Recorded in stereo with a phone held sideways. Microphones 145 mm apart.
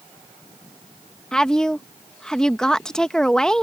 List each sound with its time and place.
1.3 s a woman speaking: 5° left (ahead or behind)